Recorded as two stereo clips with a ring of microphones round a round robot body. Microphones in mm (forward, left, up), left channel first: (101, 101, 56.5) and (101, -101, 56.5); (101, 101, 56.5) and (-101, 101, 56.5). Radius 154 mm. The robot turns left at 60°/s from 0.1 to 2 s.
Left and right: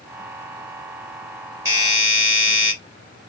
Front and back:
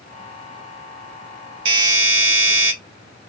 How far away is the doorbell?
About 2.0 m.